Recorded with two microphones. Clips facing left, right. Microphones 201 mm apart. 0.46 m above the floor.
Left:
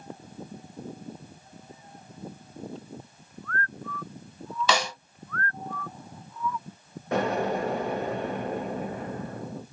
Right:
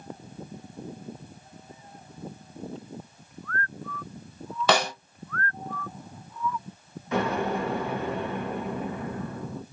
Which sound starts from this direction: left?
An explosion, at 7.1 s.